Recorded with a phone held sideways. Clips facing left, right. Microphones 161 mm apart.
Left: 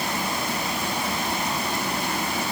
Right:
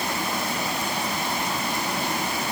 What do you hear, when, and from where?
Only background noise.